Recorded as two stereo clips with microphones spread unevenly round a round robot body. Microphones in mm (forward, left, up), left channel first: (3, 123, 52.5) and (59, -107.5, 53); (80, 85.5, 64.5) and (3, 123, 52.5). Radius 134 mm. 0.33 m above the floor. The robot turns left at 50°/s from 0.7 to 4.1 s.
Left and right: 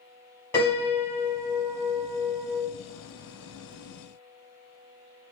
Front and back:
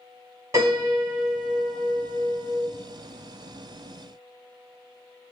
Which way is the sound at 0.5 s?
Straight behind.